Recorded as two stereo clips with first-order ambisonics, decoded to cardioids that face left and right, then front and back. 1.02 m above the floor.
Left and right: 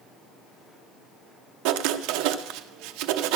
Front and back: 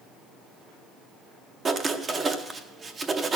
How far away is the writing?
About 0.7 m.